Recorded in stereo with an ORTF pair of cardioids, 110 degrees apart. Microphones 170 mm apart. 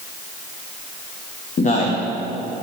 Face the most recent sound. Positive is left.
turn(degrees=50)